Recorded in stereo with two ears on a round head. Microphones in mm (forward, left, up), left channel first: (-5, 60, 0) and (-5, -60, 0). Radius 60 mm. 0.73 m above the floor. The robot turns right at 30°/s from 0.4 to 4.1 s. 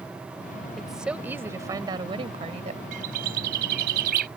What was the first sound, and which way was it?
A woman speaking, straight behind.